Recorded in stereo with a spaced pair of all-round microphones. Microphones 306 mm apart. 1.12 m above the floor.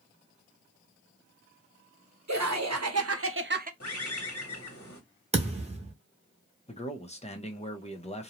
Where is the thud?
20° right (ahead or behind), 0.8 m.